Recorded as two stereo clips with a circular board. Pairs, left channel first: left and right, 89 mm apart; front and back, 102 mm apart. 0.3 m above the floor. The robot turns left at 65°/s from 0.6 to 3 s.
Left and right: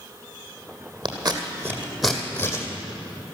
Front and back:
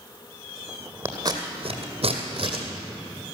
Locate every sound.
1.1 s scissors: 115° right, 2 m; by 2.6 s 140° left, 2 m